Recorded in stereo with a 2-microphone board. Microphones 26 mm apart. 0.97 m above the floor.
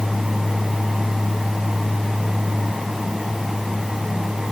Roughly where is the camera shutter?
I don't hear a camera shutter.